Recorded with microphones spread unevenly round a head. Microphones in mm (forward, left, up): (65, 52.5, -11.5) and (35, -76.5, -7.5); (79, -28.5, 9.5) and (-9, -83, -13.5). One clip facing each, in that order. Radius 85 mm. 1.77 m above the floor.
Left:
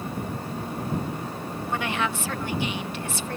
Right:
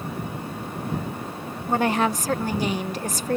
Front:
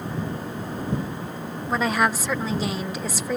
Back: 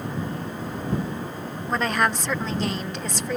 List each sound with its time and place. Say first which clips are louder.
1.7 s a woman speaking: right 7 dB, front 1 dB; 50° right